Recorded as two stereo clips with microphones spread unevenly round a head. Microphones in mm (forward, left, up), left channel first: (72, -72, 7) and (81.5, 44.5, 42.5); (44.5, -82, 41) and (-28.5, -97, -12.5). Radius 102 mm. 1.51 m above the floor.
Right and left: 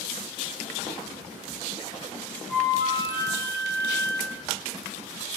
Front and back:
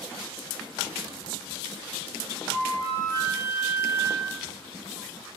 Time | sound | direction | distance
2.5 | a flute | 20° right | 4.5 m